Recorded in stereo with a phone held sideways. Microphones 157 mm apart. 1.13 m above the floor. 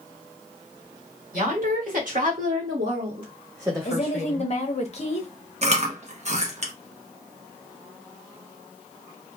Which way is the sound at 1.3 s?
60° right (ahead or behind).